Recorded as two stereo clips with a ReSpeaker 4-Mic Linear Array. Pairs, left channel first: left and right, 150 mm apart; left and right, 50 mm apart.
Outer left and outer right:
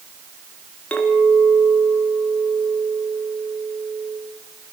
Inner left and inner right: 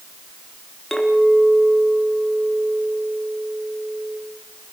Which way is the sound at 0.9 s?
10° left (ahead or behind).